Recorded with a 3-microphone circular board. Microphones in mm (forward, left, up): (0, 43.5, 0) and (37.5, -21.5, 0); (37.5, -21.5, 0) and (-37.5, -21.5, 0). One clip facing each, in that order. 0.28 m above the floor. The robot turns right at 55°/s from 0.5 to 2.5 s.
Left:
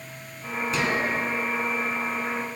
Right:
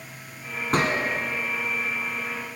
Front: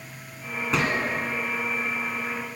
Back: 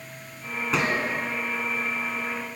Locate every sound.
0.7 s a gunshot: 90° right, 1.5 m; by 1.1 s 70° right, 1.5 m